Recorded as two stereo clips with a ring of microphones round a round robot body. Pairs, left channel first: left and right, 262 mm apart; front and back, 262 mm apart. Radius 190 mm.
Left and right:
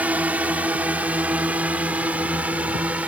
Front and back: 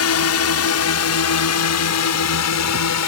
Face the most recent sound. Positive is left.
turn(degrees=-5)